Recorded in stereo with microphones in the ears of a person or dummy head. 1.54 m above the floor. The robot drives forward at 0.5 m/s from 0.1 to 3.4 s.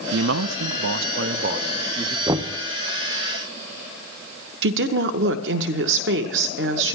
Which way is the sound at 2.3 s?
20° right (ahead or behind).